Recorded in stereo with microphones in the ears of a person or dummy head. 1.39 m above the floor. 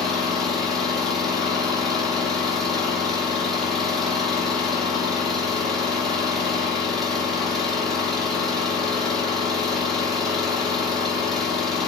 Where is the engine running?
Centre (ahead or behind), 4.5 m.